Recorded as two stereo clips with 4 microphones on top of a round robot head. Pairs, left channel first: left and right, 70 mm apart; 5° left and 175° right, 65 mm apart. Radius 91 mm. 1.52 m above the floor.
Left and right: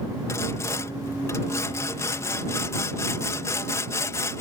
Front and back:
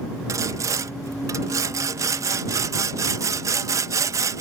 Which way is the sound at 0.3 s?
150° left.